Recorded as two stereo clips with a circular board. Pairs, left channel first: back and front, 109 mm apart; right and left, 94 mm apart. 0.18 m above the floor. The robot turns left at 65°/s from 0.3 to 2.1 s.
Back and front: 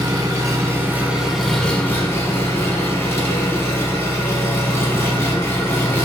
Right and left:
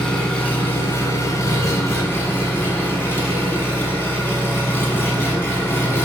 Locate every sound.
0.0 s an engine running: 20° right, 1.0 m; by 6.0 s 135° right, 1.0 m